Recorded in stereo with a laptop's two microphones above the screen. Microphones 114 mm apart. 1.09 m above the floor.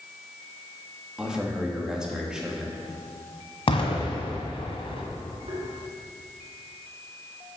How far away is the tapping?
About 3 m.